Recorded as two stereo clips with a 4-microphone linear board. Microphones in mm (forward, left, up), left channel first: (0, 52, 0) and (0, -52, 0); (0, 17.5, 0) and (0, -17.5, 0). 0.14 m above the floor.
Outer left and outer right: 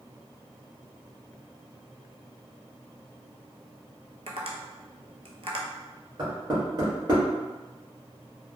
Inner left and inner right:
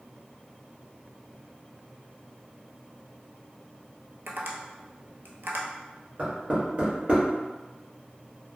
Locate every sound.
4.3 s tapping: 75° right (ahead or behind), 0.6 m
6.2 s knocking: 40° right (ahead or behind), 1.4 m